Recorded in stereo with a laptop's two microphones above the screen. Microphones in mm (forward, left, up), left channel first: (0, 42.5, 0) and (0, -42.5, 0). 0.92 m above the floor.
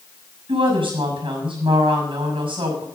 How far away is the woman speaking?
About 6.5 m.